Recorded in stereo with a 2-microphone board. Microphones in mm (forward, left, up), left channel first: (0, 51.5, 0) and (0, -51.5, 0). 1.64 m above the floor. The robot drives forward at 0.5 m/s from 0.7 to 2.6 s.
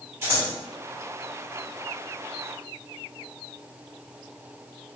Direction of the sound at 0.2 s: 25° right (ahead or behind).